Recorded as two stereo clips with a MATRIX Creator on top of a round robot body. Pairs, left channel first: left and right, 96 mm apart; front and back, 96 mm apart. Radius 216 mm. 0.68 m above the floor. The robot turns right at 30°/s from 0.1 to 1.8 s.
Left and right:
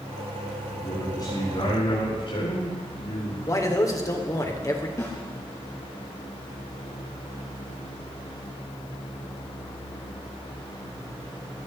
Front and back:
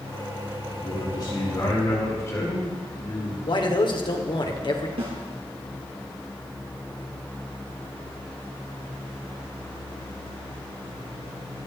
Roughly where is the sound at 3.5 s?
Ahead left.